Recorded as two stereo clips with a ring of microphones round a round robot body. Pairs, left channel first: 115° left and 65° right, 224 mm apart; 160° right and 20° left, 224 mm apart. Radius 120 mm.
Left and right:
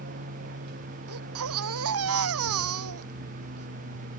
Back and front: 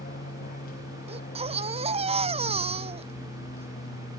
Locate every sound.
0.0 s an aircraft: 110° right; by 4.2 s 105° right
1.1 s a baby crying: 45° right